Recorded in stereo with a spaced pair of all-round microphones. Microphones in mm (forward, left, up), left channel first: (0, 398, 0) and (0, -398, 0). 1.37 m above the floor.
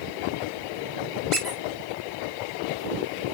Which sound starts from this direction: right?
A squeak, at 1.3 s.